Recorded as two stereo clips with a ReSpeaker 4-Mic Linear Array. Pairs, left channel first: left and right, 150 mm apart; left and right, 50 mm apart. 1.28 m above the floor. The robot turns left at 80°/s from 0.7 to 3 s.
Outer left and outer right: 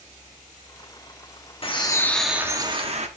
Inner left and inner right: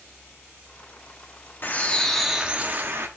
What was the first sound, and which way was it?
A bird, 50° left.